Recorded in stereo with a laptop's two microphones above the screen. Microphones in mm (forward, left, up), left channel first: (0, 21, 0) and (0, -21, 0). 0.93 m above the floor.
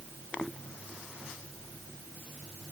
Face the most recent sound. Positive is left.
No sound to turn to.